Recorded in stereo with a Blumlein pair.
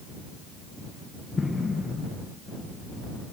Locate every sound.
1.4 s an explosion: 15° left